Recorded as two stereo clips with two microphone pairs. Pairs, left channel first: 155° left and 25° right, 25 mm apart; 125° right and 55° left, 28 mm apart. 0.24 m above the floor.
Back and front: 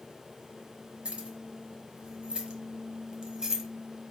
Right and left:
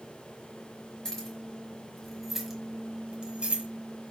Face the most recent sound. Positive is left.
turn(degrees=50)